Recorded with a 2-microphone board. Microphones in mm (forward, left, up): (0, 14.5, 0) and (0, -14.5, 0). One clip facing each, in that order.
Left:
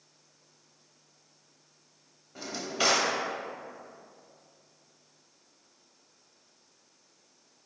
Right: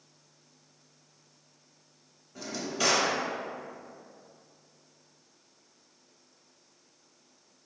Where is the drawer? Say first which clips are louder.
Left 1 dB; 20° left (ahead or behind), 0.6 m.